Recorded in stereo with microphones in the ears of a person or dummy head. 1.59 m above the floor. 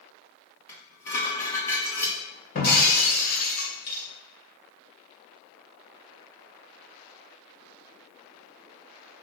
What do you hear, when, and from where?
0.7 s dishes clattering: 15° left (ahead or behind), 2.5 m
2.5 s breaking glass: 50° left (ahead or behind), 2.5 m